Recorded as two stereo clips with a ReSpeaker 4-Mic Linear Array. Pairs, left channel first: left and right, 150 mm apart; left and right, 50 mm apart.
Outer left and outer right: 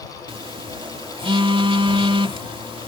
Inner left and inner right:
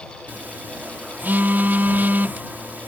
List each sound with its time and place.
0.3 s a phone buzzing: 35° right (ahead or behind)